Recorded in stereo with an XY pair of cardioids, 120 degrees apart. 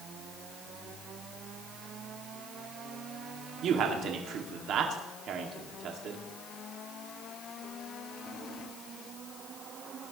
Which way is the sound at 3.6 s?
60° right.